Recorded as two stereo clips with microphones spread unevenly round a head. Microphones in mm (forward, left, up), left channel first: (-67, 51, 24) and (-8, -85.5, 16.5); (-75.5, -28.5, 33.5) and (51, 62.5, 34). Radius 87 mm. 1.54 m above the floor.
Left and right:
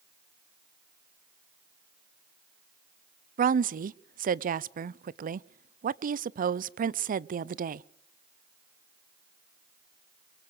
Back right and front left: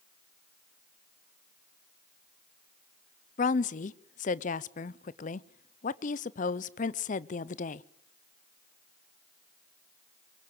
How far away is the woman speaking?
About 0.6 m.